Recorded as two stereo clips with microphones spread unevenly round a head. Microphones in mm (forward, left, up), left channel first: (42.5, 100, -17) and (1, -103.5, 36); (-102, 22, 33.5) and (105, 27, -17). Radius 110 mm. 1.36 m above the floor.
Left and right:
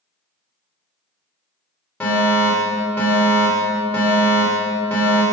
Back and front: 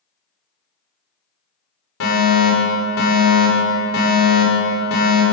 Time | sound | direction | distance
2.0 | a fire alarm | 160° left | 7 m